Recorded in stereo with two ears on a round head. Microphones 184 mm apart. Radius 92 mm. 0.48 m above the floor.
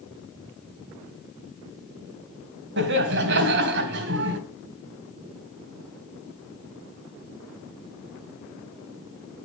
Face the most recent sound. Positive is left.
turn(degrees=-55)  # may be behind; listen again after turning